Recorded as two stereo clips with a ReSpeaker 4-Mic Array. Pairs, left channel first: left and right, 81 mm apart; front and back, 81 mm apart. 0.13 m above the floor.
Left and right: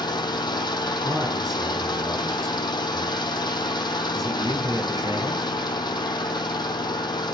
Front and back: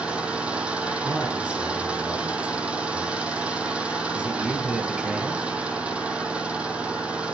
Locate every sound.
0.0 s an engine running: 105° left, 1.3 m
1.0 s a man speaking: 105° right, 2.5 m